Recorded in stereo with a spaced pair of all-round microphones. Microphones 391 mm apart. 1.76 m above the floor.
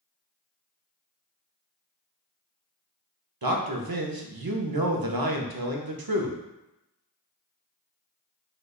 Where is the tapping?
No tapping in this recording.